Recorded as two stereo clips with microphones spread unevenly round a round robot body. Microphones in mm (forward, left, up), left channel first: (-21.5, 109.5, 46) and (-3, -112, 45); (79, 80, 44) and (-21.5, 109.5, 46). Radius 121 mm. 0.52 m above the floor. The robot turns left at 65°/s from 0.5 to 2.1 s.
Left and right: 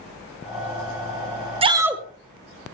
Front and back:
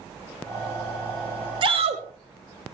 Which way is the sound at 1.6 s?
150° right.